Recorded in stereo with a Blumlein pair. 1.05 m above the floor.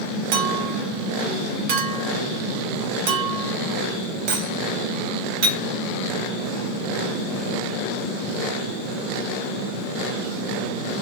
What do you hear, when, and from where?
0.3 s a clink: 45° right, 1.0 m